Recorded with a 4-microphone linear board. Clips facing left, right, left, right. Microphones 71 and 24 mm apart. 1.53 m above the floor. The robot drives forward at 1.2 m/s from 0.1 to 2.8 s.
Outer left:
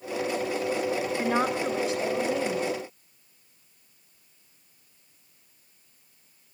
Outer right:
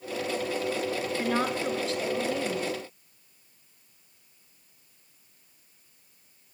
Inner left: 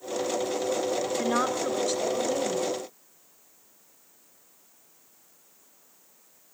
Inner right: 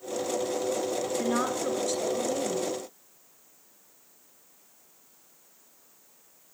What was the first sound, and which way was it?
A woman speaking, 15° left (ahead or behind).